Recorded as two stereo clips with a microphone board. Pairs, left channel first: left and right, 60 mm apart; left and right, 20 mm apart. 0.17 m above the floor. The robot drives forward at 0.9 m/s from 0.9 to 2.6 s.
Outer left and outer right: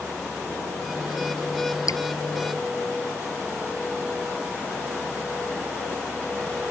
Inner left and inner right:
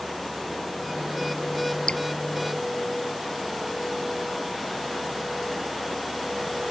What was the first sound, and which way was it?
Dripping, 65° left (ahead or behind).